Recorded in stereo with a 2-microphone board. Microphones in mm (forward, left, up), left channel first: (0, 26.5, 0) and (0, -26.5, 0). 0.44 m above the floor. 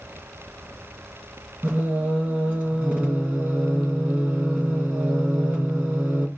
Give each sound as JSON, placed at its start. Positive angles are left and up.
{"t": 1.6, "sound": "singing", "side_deg": -25, "distance_m": 2.5}